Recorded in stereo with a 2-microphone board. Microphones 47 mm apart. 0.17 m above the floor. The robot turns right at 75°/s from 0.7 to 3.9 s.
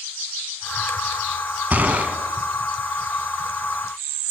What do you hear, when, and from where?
1.7 s a gunshot: 80° right, 0.9 m; by 2.2 s 45° right, 0.9 m